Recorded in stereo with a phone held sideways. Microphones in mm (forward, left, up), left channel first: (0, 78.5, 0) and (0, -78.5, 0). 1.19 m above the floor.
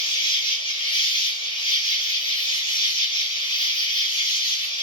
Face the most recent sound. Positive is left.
turn(degrees=30)  # may be behind; listen again after turning